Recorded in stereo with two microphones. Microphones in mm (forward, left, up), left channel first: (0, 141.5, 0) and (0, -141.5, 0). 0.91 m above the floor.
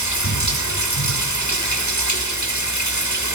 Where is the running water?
85° left, 5 m.